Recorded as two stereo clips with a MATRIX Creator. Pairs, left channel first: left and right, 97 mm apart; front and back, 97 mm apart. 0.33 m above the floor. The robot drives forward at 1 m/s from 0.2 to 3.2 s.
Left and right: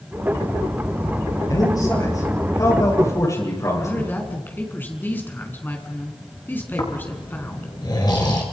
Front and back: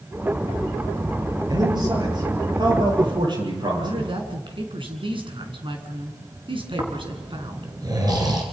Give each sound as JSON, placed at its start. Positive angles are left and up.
{"t": 1.5, "sound": "a man speaking", "azimuth_deg": 140, "distance_m": 9.0}
{"t": 3.8, "sound": "a woman speaking", "azimuth_deg": 160, "distance_m": 4.0}
{"t": 6.8, "sound": "snoring", "azimuth_deg": 135, "distance_m": 4.0}